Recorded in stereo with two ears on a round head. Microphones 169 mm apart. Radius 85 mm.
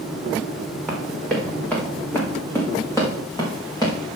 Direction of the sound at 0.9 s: Centre (ahead or behind).